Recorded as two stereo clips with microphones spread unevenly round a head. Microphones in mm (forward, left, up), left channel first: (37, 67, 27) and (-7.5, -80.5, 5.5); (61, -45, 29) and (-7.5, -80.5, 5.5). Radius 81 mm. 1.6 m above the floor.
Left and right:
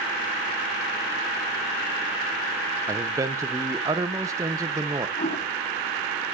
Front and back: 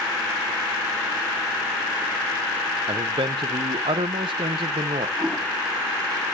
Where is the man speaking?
Straight behind, 0.8 m.